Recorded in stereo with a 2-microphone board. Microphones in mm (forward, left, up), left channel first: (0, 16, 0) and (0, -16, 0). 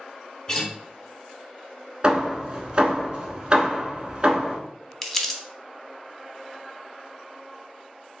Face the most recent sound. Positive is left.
turn(degrees=10)  # may be behind; listen again after turning